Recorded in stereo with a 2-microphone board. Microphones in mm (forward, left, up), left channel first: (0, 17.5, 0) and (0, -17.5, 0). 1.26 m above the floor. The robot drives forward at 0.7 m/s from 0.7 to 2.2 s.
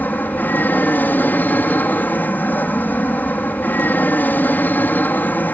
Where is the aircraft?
60° left (ahead or behind).